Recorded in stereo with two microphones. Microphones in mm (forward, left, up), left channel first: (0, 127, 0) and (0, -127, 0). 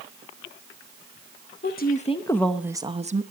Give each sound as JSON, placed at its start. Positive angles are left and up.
{"t": 1.6, "sound": "a woman speaking", "side_deg": 40, "distance_m": 0.8}